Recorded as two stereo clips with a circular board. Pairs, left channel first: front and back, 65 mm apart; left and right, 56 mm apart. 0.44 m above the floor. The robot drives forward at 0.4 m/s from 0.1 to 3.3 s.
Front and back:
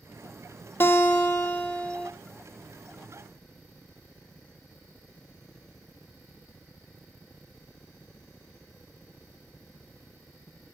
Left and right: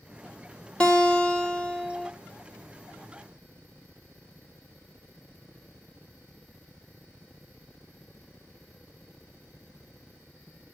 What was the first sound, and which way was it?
A guitar, 30° left.